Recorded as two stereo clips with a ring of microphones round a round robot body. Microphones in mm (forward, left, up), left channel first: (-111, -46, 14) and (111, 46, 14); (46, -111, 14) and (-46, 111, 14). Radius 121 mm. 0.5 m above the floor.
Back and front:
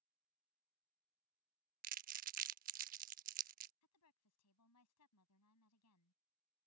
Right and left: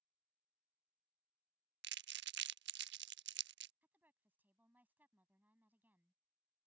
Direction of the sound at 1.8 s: 75° left.